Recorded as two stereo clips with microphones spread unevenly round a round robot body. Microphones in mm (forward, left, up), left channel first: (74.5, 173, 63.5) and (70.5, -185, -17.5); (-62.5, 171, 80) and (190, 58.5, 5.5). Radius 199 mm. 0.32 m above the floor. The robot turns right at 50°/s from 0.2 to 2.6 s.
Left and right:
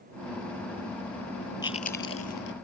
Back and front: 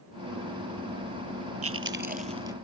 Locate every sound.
1.6 s chewing: 10° left; by 2.5 s 55° left